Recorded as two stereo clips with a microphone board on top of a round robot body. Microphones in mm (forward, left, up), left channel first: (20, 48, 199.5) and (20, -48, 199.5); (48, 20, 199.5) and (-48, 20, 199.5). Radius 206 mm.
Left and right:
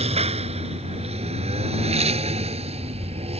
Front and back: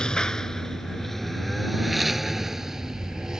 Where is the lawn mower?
85° right; by 3.4 s 95° right.